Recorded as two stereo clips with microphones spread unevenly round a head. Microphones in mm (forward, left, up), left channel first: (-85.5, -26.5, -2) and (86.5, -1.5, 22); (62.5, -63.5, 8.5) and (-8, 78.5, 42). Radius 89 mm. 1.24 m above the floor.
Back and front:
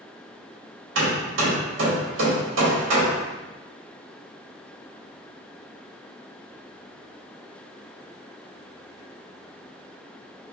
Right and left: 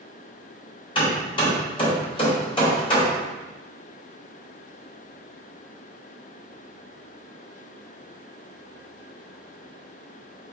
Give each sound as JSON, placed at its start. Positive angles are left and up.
{"t": 0.9, "sound": "hammering", "azimuth_deg": 0, "distance_m": 2.5}